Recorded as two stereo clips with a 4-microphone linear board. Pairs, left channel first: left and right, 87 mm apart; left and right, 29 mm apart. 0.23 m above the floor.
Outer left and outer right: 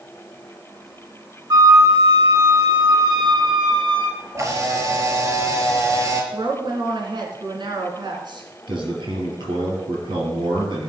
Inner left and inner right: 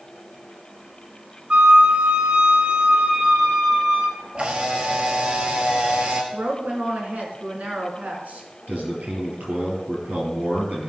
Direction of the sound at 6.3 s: 60° right (ahead or behind).